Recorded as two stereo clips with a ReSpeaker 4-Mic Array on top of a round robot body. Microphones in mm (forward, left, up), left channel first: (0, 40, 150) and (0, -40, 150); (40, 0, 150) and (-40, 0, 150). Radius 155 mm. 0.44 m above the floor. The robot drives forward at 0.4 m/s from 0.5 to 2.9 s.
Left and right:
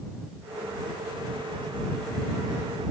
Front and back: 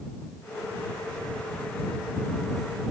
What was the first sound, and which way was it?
Only background noise.